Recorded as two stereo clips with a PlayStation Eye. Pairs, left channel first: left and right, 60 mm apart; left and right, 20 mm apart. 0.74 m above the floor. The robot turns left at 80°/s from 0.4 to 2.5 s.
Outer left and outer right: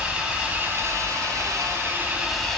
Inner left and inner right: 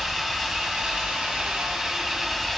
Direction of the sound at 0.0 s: 20° right.